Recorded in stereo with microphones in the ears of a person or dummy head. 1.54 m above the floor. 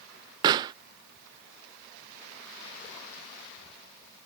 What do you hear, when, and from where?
0.4 s a pop: 25° right (ahead or behind)